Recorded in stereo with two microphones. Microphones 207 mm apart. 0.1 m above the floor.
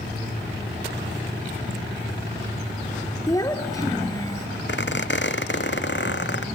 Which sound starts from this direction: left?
A squeak, at 4.7 s.